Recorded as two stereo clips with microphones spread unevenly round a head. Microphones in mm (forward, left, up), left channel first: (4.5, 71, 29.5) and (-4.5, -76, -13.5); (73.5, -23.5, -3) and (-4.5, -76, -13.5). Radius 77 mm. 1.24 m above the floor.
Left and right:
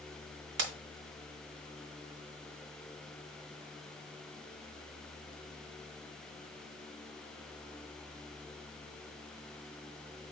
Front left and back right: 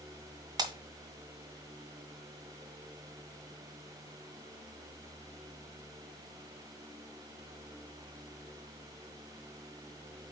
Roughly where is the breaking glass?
Right.